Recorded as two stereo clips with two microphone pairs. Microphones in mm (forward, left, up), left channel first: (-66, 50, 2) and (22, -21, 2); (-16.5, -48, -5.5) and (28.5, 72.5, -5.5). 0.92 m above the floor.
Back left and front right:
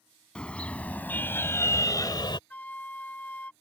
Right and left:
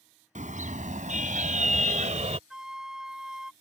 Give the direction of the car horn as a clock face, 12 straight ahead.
10 o'clock.